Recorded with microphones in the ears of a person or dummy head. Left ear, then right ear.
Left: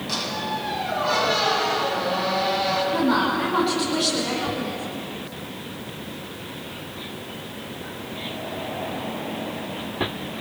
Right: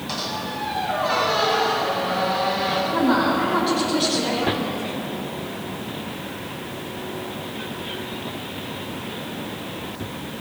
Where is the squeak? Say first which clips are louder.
Left 1 dB; 10° right (ahead or behind), 10 m.